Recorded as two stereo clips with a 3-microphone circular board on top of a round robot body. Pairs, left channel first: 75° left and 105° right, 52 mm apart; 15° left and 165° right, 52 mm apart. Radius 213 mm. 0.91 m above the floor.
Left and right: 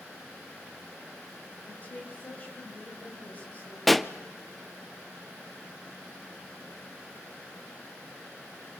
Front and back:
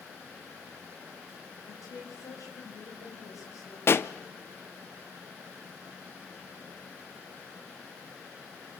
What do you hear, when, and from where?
1.6 s a woman speaking: 15° left, 5.5 m
3.9 s a pop: 15° right, 1.0 m